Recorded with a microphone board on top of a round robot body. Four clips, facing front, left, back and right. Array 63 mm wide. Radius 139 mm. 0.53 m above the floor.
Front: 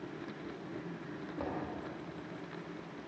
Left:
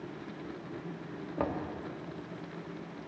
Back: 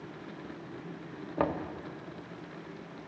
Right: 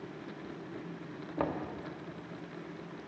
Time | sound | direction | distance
1.4 | knocking | 170° right | 1.1 m